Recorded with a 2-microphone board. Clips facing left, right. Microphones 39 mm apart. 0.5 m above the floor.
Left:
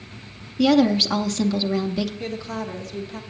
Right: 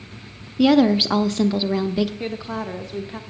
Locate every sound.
0.6 s a woman speaking: 20° right (ahead or behind), 0.7 m
2.2 s a woman speaking: 25° right (ahead or behind), 1.0 m